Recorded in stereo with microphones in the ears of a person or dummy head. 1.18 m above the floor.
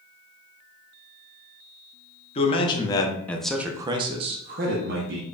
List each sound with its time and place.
2.4 s a man speaking: 30° left (ahead or behind), 1.0 m; by 5.2 s 55° right (ahead or behind), 0.9 m